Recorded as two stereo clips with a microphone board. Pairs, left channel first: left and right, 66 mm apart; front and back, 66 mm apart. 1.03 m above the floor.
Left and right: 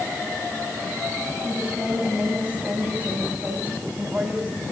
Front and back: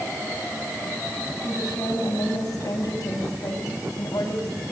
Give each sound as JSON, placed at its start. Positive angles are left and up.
{"t": 1.4, "sound": "a woman speaking", "azimuth_deg": -20, "distance_m": 9.0}